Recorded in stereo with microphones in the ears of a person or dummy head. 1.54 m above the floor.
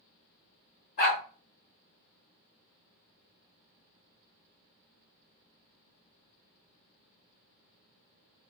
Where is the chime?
No chime in this recording.